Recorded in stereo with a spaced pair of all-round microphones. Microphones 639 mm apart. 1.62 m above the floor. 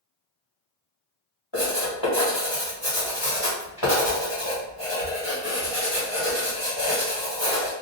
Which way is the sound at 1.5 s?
45° left (ahead or behind).